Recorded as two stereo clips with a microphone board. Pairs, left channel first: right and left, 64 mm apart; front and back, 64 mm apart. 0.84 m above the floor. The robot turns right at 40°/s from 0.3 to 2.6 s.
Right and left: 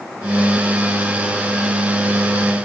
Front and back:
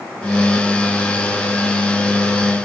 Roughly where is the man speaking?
I don't hear a man speaking.